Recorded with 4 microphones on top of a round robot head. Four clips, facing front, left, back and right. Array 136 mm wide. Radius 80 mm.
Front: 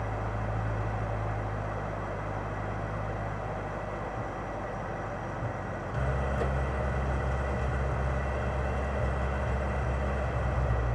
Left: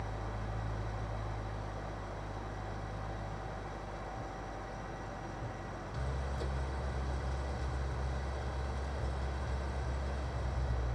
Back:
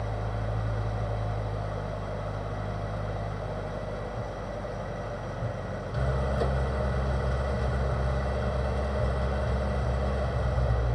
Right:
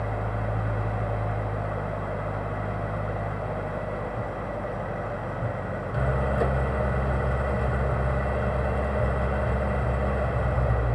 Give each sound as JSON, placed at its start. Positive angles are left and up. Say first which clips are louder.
{"t": 0.0, "sound": "an engine running", "louder": "right 12 dB, even", "azimuth_deg": -110}